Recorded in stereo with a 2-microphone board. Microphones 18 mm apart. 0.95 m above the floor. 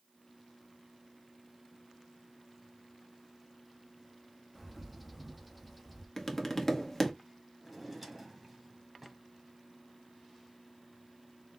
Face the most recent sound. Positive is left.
turn(degrees=-15)  # may be behind; listen again after turning